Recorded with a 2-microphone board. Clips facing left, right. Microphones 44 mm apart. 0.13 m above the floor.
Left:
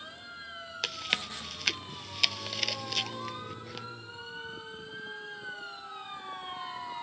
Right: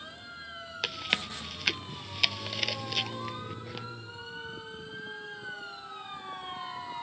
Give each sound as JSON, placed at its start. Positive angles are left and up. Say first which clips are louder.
{"t": 0.8, "sound": "chewing", "louder": "right 1 dB", "side_deg": -10}